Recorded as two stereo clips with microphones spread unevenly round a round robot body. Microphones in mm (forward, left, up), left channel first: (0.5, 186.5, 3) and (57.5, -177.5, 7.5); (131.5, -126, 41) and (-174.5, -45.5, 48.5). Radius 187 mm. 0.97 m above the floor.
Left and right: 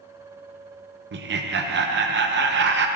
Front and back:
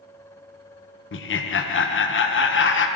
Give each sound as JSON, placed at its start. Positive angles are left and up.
{"t": 1.1, "sound": "laughter", "azimuth_deg": -35, "distance_m": 0.7}